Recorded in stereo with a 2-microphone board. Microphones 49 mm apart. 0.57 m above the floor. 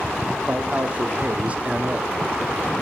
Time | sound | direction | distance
0.5 | a man speaking | 25° right (ahead or behind) | 0.8 m